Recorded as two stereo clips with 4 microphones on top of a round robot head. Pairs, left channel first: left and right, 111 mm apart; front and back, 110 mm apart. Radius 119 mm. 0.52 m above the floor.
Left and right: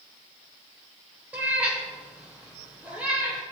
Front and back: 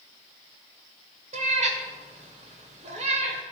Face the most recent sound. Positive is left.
turn(degrees=-170)